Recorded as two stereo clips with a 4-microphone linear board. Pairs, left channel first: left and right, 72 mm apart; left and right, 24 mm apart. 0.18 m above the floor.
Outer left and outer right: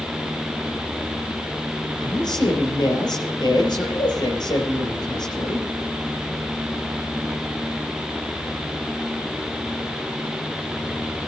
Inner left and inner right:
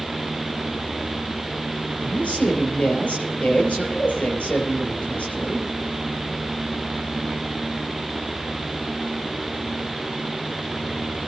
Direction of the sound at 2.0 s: 70° left (ahead or behind).